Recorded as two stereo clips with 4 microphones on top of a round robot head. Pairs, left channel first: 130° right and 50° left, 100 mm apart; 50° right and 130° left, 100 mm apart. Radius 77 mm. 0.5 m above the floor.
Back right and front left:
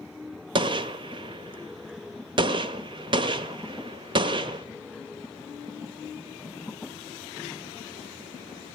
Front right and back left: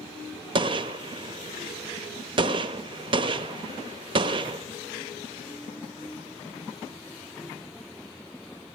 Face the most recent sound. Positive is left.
turn(degrees=90)